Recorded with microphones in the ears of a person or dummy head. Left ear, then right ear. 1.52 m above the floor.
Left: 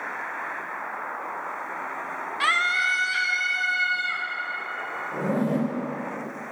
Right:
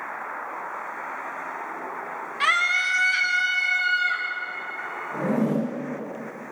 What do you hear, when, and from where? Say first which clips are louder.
2.4 s a scream: right 1 dB; centre (ahead or behind), 1.0 m; by 4.3 s 15° right (ahead or behind), 2.5 m
5.1 s a zipper: right 2 dB; 5° right (ahead or behind), 4 m